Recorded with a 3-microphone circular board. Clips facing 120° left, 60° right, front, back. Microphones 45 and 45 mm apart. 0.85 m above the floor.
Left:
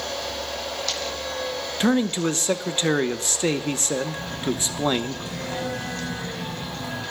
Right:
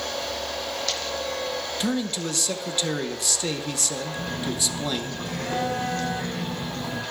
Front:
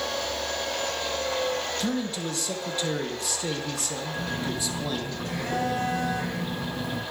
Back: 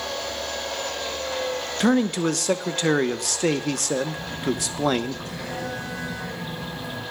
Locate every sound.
1.8 s a man speaking: 170° left, 0.9 m
4.2 s a phone buzzing: 30° right, 6 m